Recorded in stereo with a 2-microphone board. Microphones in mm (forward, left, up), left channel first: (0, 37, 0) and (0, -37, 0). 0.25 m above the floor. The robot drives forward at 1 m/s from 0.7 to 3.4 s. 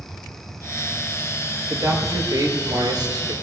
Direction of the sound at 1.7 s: 50° right (ahead or behind).